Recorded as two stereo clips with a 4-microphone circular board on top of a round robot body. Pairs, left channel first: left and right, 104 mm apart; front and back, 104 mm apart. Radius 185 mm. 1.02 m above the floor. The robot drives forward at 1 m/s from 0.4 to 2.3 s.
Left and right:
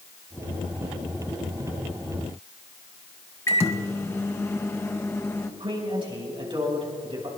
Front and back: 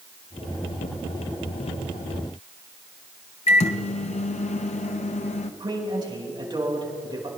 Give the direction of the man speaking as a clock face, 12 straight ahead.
4 o'clock.